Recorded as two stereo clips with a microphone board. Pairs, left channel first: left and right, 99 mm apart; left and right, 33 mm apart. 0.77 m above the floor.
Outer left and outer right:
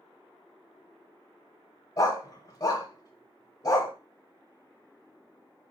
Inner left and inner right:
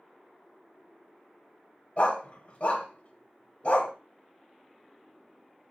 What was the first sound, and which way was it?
A dog barking, 35° left (ahead or behind).